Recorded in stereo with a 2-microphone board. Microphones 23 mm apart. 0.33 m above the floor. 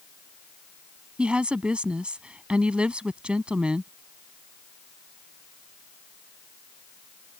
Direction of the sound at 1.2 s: 60° right (ahead or behind).